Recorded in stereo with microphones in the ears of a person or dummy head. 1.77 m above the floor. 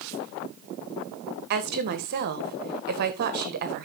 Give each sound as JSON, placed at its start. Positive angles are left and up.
{"t": 1.5, "sound": "a woman speaking", "side_deg": -50, "distance_m": 1.7}